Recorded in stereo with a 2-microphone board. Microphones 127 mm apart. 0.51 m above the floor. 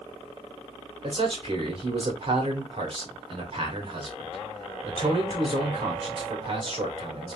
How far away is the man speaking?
About 2 m.